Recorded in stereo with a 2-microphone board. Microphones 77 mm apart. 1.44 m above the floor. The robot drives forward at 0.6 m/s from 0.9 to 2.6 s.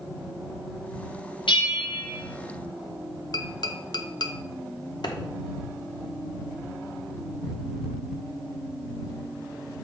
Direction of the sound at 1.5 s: 80° left.